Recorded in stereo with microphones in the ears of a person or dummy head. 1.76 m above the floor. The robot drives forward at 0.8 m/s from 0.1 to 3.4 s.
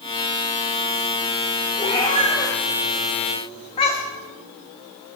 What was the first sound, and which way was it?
A cat meowing, 20° left (ahead or behind).